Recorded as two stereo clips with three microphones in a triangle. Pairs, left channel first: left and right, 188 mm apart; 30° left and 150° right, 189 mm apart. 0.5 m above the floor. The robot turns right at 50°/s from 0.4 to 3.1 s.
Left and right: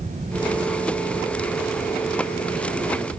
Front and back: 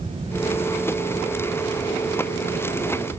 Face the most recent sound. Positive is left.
No sound to turn to.